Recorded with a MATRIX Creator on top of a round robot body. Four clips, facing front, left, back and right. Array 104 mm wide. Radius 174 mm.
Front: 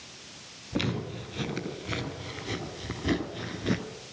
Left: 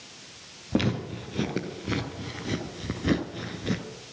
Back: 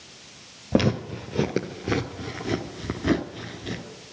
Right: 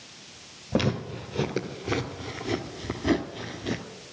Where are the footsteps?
175° right, 1.7 m; by 3.8 s 10° left, 0.8 m.